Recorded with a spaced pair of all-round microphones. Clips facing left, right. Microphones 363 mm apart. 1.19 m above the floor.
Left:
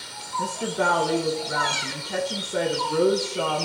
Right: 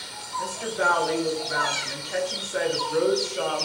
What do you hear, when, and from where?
0.4 s a woman speaking: 50° left (ahead or behind), 0.9 m